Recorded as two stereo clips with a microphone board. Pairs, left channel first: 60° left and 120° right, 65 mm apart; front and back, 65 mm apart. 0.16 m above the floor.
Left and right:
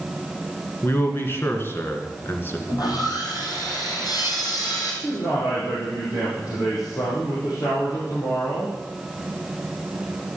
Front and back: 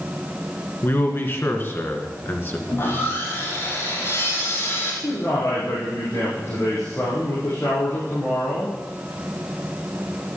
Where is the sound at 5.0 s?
50° left, 4.5 m.